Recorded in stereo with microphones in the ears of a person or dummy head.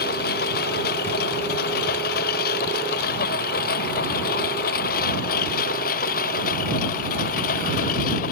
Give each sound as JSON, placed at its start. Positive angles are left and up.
{"t": 0.0, "sound": "a lawn mower", "side_deg": 65}